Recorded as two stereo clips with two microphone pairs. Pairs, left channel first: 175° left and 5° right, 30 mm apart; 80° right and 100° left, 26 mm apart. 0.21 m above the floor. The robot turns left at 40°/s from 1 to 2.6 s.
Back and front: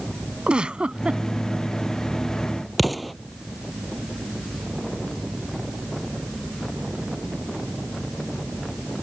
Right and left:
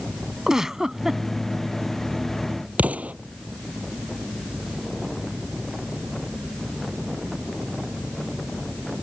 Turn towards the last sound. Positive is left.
turn(degrees=85)